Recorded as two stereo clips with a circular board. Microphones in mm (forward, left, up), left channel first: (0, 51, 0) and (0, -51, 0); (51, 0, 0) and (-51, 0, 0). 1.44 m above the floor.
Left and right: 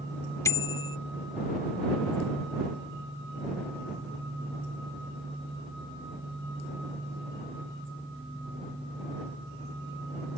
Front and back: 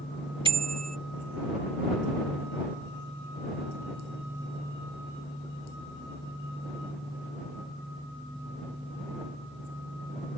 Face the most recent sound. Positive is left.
turn(degrees=150)